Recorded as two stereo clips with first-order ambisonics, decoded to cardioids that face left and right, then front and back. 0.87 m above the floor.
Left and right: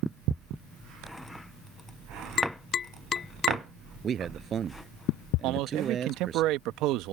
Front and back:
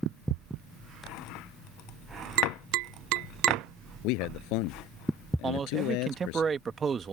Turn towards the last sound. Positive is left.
turn(degrees=-110)